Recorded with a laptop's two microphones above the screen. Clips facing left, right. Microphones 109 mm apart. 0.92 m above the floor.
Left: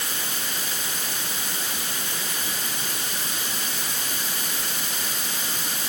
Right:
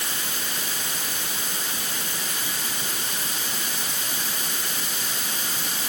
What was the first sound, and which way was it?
Only background noise.